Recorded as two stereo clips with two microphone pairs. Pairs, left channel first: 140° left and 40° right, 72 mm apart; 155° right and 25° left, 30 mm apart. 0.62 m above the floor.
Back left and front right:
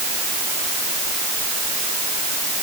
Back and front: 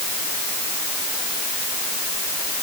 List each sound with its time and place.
Only background noise.